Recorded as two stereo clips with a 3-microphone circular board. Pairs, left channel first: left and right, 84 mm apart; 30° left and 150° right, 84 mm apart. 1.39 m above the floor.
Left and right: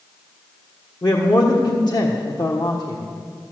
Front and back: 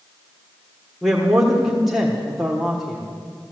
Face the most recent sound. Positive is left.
turn(degrees=125)